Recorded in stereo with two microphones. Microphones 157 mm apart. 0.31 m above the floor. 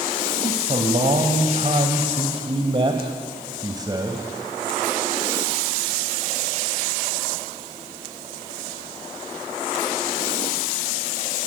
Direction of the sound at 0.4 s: 45° right (ahead or behind).